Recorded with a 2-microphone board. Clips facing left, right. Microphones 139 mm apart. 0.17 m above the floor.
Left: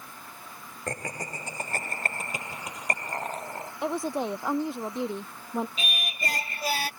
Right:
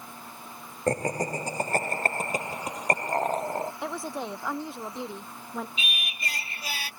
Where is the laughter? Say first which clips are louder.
Right 9 dB; 35° right (ahead or behind); by 3.7 s 40° right (ahead or behind).